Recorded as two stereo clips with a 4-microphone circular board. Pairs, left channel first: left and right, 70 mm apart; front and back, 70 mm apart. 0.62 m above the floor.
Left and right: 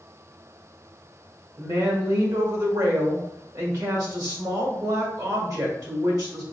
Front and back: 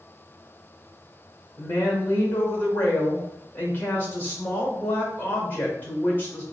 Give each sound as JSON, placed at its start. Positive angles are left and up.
{"t": 1.6, "sound": "a woman speaking", "azimuth_deg": -65, "distance_m": 1.8}